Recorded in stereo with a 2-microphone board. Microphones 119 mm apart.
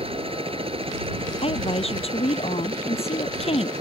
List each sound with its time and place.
0.0 s a helicopter: 50° right (ahead or behind)
1.4 s a woman speaking: 55° left (ahead or behind)